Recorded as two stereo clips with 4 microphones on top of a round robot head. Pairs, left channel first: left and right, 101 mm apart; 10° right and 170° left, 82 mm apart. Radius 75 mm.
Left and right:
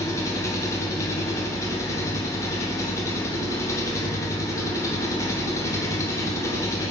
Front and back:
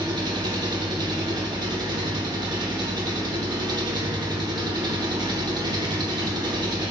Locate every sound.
0.0 s an engine running: 145° left, 1.2 m